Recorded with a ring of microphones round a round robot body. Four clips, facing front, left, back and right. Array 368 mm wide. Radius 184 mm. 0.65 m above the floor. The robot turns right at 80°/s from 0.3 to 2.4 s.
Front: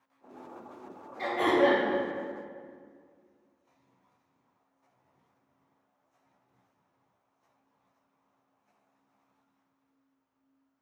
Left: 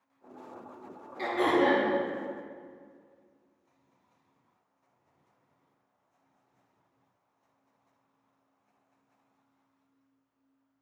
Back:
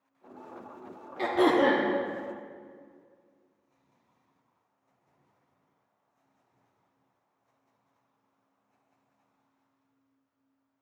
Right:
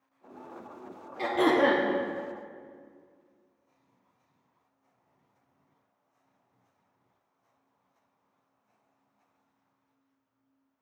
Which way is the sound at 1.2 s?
170° right.